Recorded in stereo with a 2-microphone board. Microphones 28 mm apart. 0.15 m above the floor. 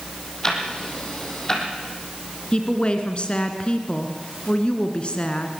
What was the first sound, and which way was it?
Ticking, 25° left (ahead or behind).